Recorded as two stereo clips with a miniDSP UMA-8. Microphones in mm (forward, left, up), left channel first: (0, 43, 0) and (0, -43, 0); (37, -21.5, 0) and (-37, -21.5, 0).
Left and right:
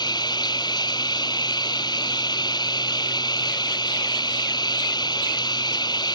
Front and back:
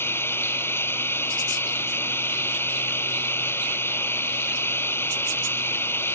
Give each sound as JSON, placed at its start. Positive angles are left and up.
{"t": 0.0, "sound": "running water", "azimuth_deg": 55}